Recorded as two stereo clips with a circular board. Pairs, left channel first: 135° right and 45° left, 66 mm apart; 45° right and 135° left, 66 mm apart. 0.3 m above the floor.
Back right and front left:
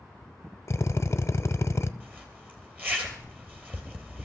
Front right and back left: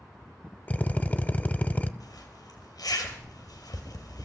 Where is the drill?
105° right, 0.6 m.